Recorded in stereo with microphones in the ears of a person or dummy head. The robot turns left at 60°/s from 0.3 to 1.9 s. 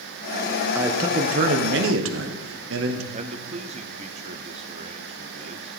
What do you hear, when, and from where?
0.8 s a man speaking: 15° right, 1.3 m; by 3.0 s 85° right, 1.3 m
3.1 s a man speaking: 30° right (ahead or behind), 0.8 m